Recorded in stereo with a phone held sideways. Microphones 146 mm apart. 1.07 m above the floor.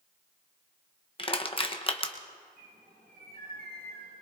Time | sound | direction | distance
1.2 | crushing | 35° left (ahead or behind) | 0.9 m
2.6 | a bird | 85° right | 5 m